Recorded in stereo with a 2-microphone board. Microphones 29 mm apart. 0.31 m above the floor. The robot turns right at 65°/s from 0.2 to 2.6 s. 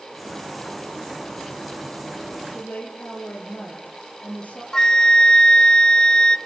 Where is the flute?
25° left (ahead or behind), 0.7 m.